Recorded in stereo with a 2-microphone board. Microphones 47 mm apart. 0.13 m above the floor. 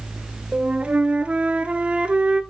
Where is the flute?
25° right (ahead or behind), 0.7 m.